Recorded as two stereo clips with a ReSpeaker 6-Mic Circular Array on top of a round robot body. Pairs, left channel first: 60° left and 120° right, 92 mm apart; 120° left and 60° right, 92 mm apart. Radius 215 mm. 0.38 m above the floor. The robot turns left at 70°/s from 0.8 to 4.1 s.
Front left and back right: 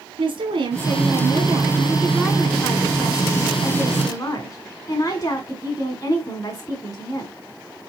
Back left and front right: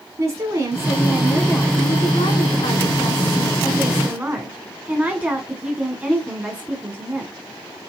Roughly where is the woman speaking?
Behind right.